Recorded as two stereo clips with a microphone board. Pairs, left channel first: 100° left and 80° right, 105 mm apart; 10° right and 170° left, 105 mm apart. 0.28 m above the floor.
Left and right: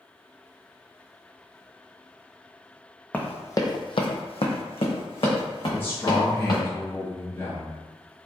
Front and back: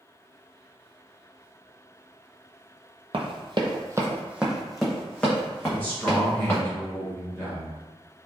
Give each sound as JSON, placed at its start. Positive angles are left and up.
{"t": 3.1, "sound": "running footsteps", "azimuth_deg": 175, "distance_m": 0.6}
{"t": 5.7, "sound": "a man speaking", "azimuth_deg": 50, "distance_m": 1.3}